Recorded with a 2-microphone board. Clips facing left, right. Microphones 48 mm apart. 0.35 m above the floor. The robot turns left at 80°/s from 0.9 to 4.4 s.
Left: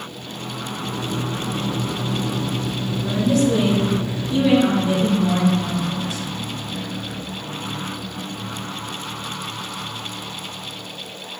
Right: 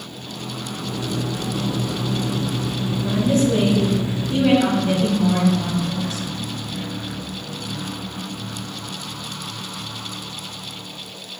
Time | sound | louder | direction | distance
3.0 | a woman speaking | even | 15° right | 2.5 m